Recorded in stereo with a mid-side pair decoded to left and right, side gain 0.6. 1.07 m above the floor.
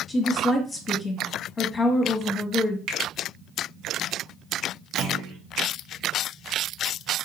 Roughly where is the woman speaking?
Ahead left.